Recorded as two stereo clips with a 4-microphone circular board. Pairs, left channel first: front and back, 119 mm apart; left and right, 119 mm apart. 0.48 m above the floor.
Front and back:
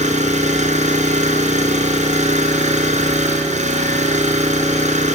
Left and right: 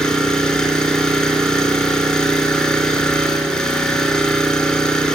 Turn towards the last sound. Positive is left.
turn(degrees=175)